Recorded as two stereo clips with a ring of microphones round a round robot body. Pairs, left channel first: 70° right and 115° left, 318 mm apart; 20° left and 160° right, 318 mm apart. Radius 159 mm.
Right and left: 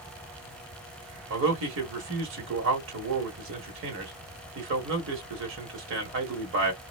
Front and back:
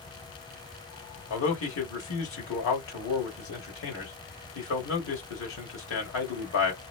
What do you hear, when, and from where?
1.3 s a man speaking: 65° left, 1.4 m